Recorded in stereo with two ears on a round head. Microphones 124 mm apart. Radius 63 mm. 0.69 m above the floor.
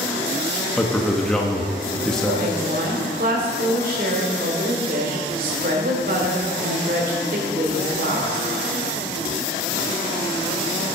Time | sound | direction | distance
0.8 | a man speaking | 5° left (ahead or behind) | 0.9 m
2.2 | a woman speaking | 65° right (ahead or behind) | 2.5 m